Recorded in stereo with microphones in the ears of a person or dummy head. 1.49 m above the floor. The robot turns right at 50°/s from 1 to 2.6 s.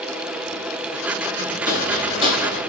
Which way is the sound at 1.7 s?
20° left (ahead or behind).